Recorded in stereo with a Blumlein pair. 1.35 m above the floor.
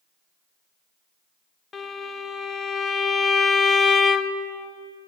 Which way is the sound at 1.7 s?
20° left.